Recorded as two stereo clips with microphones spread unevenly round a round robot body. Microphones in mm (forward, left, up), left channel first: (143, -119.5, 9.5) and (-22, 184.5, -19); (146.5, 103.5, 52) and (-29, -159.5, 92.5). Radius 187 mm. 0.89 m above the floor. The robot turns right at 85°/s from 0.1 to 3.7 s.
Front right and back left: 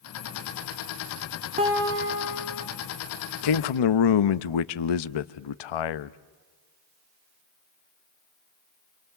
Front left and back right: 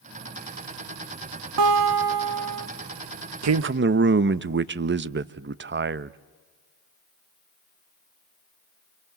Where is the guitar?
170° right, 1.6 m; by 2.7 s 80° right, 1.6 m.